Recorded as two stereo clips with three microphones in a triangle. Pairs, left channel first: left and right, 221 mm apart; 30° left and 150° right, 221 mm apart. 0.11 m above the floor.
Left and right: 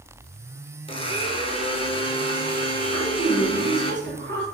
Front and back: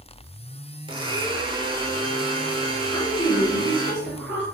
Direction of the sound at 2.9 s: 135° left.